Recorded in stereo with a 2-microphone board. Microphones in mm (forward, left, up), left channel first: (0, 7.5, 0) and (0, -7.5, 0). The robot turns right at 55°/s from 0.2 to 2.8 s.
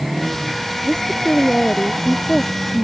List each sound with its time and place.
0.8 s a woman speaking: 65° left; by 2.8 s 175° left